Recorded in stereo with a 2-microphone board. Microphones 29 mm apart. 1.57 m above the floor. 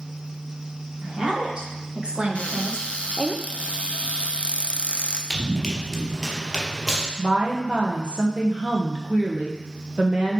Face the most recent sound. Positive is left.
turn(degrees=-50)  # may be behind; listen again after turning